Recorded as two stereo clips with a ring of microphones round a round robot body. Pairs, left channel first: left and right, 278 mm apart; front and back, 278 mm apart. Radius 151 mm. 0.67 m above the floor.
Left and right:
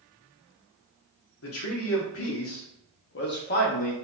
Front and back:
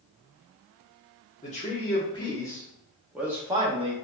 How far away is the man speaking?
About 1.7 m.